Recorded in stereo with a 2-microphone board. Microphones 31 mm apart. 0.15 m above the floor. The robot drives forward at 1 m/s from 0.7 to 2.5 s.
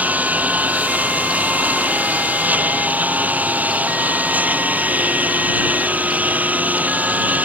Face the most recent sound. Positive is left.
turn(degrees=-60)  # may be behind; listen again after turning